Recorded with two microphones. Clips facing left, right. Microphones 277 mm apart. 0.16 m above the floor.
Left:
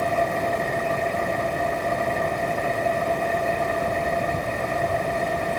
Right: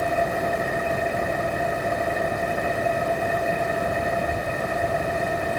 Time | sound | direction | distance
0.0 | an engine running | 5° right (ahead or behind) | ?